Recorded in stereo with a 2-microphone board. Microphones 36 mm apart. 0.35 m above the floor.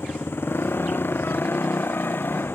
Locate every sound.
0.0 s a motorcycle: 80° left; by 2.6 s 75° left (ahead or behind)